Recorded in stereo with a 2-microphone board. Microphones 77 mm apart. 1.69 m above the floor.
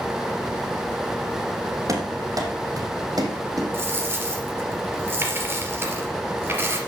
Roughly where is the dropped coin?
Right.